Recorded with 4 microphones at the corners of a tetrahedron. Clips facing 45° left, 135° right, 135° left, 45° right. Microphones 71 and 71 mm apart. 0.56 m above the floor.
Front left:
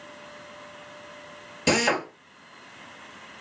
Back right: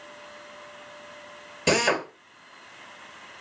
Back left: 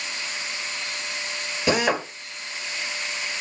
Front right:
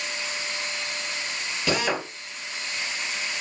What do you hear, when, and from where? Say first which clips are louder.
1.7 s a drill: even, back left 4 dB; 135° left, 1.1 m